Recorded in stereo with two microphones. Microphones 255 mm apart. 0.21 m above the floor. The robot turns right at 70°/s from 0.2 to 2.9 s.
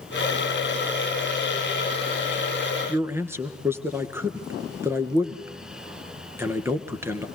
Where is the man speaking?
10° right (ahead or behind), 2.5 m.